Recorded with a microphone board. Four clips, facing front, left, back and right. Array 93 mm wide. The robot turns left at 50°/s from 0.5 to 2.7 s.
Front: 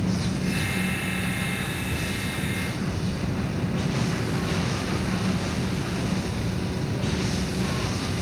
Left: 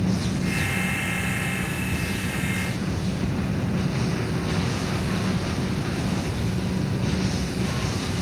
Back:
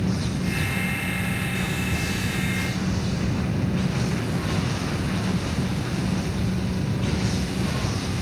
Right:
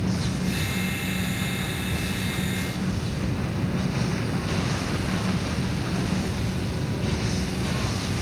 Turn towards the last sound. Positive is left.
No sound to turn to.